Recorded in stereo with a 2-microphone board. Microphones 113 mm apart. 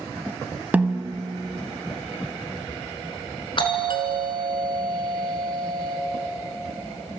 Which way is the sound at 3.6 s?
45° left (ahead or behind).